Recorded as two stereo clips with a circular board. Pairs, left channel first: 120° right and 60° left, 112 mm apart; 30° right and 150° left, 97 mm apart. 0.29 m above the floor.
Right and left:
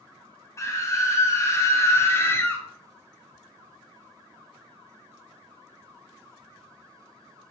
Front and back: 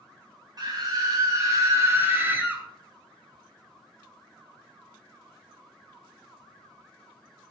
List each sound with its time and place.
0.6 s a scream: 175° right, 2 m; by 2.6 s 155° right, 1.4 m